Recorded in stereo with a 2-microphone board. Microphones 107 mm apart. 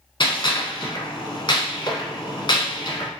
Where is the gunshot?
50° left (ahead or behind), 1.0 m.